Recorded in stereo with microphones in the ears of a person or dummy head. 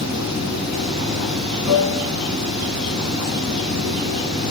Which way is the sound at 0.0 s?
Centre (ahead or behind).